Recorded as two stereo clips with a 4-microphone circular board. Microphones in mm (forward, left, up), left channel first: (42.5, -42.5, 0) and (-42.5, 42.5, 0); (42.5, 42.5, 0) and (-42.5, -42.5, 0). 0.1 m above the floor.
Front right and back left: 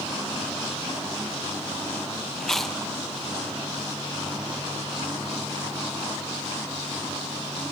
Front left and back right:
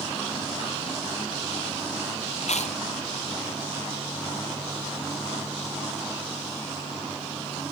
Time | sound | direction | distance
2.4 | chewing | 40° left | 3 m